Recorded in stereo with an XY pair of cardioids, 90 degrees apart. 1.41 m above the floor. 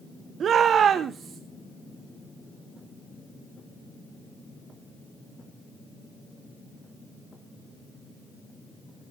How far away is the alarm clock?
I don't hear an alarm clock.